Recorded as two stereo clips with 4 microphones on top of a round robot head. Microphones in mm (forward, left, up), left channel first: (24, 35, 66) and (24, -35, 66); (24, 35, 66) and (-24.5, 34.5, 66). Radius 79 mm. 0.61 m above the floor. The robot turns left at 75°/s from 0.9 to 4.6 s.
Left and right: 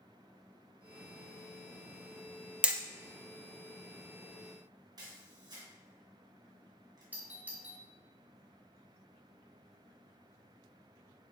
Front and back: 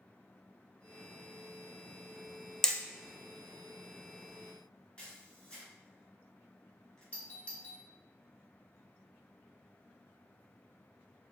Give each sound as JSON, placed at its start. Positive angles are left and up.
{"t": 2.6, "sound": "hammering", "azimuth_deg": -50, "distance_m": 0.6}
{"t": 5.0, "sound": "a camera shutter", "azimuth_deg": -75, "distance_m": 2.0}
{"t": 7.1, "sound": "a doorbell", "azimuth_deg": -40, "distance_m": 1.2}